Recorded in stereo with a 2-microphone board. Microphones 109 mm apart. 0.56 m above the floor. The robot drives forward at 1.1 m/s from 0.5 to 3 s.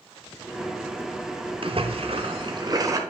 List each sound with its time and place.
1.6 s a splash: 55° right (ahead or behind), 0.9 m; by 3.0 s 30° right (ahead or behind), 1.4 m